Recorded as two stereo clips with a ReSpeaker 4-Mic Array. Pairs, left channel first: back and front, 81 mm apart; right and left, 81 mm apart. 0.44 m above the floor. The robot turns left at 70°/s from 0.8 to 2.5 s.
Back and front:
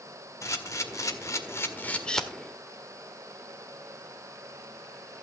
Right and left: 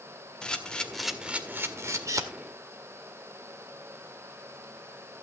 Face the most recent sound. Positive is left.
turn(degrees=80)